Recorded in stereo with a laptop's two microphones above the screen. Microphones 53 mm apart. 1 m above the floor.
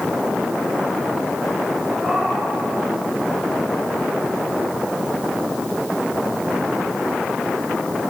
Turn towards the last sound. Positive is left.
turn(degrees=-5)  # may be behind; listen again after turning